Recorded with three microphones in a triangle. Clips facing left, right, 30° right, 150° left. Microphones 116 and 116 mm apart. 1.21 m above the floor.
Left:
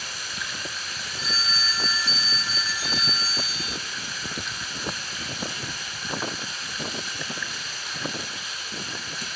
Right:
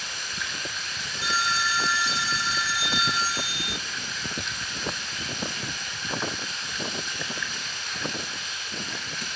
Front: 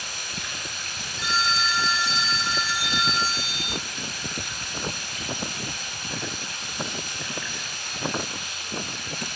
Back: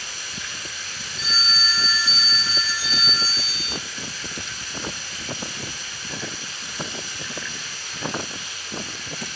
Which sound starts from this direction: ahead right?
A phone ringing, at 1.2 s.